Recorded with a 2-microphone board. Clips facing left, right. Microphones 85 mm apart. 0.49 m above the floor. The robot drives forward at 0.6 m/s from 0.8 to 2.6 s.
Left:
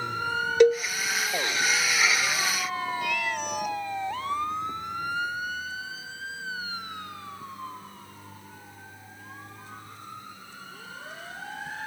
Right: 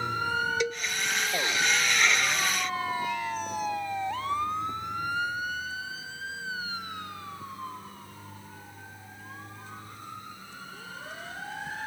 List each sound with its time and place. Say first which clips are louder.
0.6 s a cowbell: left 12 dB; 60° left (ahead or behind)
3.0 s a cat meowing: left 1 dB; 85° left